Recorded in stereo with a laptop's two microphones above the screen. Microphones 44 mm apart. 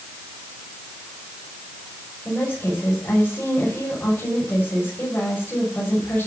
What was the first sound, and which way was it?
A woman speaking, 35° left (ahead or behind).